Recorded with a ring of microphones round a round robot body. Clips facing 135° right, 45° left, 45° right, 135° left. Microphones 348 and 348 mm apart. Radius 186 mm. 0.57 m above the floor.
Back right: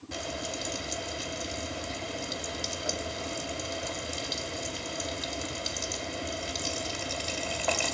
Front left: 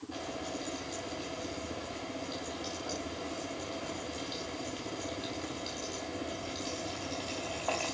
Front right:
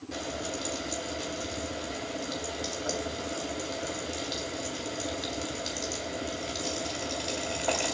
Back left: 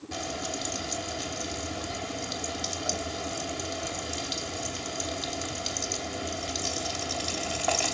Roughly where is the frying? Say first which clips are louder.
Back right 3 dB, even; behind right.